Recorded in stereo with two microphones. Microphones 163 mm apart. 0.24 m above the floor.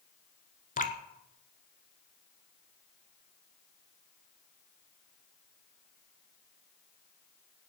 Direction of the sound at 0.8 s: 55° left (ahead or behind).